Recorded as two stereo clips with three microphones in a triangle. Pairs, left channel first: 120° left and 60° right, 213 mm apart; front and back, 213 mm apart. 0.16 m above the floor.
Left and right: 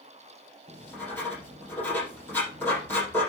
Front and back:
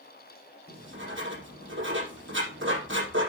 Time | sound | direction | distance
0.7 | writing | 160° right | 6 m